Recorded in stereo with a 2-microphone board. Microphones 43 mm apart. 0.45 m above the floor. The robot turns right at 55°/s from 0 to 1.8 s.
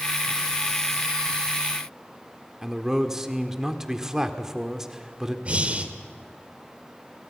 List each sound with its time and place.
2.6 s a man speaking: 10° right (ahead or behind), 1.5 m
5.5 s breathing: 35° right (ahead or behind), 1.6 m